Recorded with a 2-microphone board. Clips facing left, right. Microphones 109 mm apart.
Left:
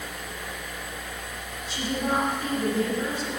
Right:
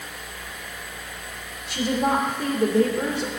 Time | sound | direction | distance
1.7 | a woman speaking | 70° right (ahead or behind) | 2.5 m